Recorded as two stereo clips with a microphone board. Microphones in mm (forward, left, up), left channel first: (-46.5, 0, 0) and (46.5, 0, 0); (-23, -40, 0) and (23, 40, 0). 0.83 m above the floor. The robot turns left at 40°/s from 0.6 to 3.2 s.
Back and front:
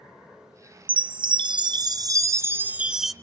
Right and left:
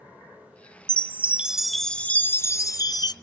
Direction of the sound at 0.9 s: Straight ahead.